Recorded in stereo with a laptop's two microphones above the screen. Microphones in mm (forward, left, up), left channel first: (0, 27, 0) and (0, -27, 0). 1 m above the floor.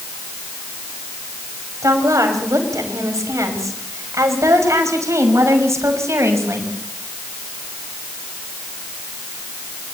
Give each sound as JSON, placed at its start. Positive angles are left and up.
{"t": 1.8, "sound": "a woman speaking", "side_deg": -85, "distance_m": 5.5}